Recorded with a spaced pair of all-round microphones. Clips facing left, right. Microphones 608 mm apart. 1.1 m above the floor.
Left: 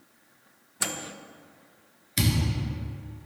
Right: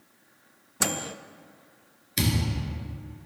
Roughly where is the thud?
Centre.